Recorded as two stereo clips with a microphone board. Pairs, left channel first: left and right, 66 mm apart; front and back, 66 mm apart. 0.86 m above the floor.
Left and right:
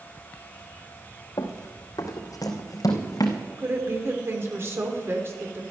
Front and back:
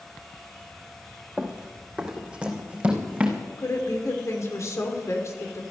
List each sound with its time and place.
1.4 s running footsteps: 100° left, 2.5 m; by 3.4 s 110° left, 3 m
3.6 s a woman speaking: 40° right, 3 m